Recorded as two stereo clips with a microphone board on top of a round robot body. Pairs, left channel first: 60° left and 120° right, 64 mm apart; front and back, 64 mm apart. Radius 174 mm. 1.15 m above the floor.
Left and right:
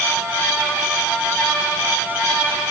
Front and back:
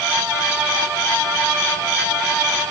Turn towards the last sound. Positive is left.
No sound to turn to.